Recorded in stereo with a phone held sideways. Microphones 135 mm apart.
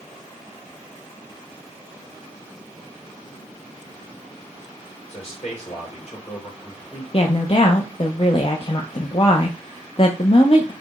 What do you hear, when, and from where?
5.1 s a man speaking: 45° left (ahead or behind), 2.5 m
7.1 s a woman speaking: 40° left (ahead or behind), 0.5 m